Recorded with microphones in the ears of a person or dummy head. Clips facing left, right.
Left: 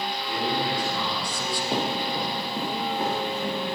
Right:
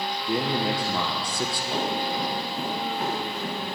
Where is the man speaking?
20° right (ahead or behind), 0.8 m; by 1.6 s 50° right (ahead or behind), 0.7 m.